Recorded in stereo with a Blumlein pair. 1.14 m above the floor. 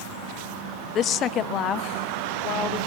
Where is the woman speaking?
30° left, 0.7 m.